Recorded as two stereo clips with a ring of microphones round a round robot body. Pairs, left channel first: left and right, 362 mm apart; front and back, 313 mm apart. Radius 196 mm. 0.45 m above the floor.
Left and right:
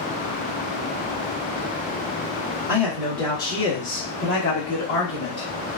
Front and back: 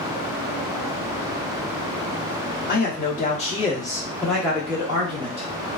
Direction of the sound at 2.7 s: 10° right.